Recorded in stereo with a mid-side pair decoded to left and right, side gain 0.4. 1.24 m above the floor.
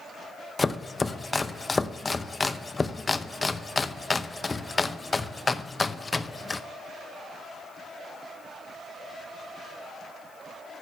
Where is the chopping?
25° left, 0.7 m.